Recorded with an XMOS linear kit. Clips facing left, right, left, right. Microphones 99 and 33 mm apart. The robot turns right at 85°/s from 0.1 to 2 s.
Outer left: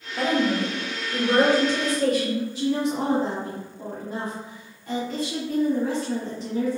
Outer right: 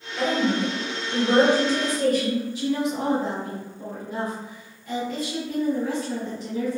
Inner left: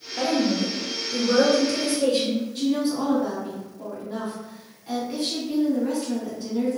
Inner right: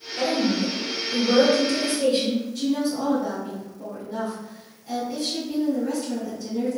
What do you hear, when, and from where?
0.2 s a woman speaking: 130° left, 1.6 m; by 2.5 s 75° right, 1.6 m
2.5 s a woman speaking: 40° left (ahead or behind), 1.5 m